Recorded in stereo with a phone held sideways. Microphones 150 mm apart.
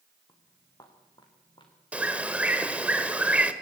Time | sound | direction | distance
0.3 | footsteps | 20° left (ahead or behind) | 5 m
1.9 | a bird | 10° right (ahead or behind) | 1.4 m